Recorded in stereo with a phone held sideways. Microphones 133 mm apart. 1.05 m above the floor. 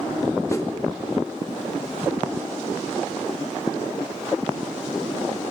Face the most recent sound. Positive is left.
turn(degrees=25)  # may be behind; listen again after turning